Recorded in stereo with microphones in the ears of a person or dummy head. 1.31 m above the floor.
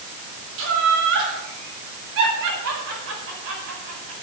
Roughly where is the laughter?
Right.